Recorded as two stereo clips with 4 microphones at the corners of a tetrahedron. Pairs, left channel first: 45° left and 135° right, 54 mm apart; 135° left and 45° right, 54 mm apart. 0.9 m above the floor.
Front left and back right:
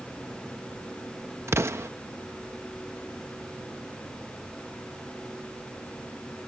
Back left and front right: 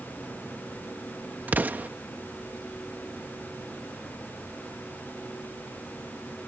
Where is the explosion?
100° right.